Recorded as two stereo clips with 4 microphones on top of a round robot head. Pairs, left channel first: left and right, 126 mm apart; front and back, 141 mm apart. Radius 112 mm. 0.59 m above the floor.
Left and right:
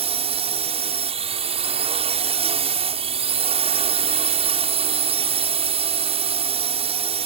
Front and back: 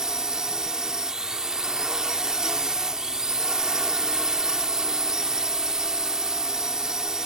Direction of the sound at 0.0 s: 95° right.